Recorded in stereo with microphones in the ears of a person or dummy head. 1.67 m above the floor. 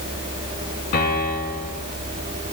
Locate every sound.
0.9 s a piano: 50° left (ahead or behind), 6.5 m